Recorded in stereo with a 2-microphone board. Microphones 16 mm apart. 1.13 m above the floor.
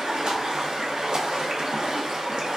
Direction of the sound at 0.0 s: 60° right (ahead or behind).